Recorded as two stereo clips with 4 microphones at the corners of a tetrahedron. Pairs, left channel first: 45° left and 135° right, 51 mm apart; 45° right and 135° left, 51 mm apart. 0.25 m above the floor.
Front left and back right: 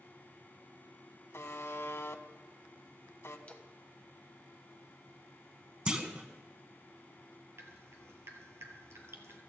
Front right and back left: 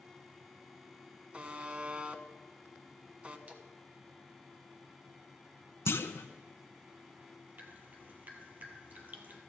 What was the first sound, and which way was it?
A buzzer, 75° left.